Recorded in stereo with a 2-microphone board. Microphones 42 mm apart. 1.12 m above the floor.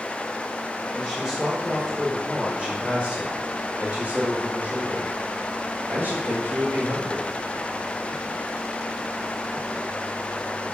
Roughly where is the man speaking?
Centre.